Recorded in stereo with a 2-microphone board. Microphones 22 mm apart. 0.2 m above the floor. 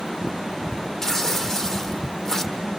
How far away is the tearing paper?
About 1.3 m.